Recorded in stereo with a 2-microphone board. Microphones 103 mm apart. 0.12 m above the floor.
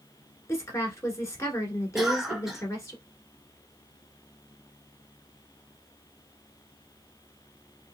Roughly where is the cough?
Centre.